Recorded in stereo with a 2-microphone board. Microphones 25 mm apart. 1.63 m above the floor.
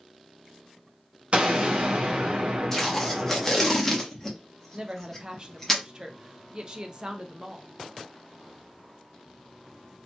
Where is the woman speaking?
35° right (ahead or behind), 0.5 m.